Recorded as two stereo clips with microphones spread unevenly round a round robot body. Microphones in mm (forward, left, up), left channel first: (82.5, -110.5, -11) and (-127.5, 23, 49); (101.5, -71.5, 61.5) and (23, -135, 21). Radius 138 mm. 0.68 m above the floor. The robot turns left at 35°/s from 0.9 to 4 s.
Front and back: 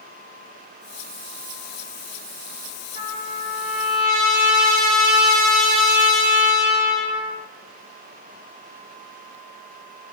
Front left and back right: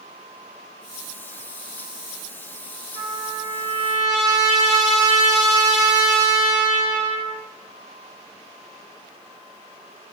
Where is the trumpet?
155° right, 2.5 m; by 7.4 s 165° left, 2.5 m.